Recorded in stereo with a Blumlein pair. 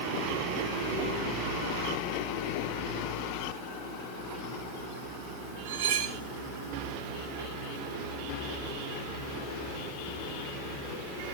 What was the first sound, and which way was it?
Cutlery clinking, 50° right.